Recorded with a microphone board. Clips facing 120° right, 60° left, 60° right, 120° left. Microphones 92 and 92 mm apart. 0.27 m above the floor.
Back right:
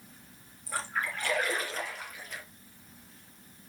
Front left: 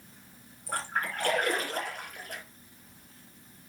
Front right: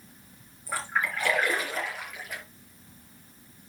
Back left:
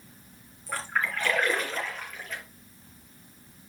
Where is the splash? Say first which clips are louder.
Front left 1 dB, even; 20° left, 4 m.